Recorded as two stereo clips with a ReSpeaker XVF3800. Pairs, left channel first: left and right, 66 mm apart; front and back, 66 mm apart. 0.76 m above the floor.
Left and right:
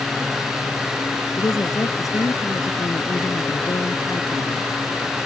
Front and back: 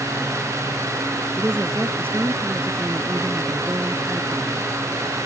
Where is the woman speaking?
120° left.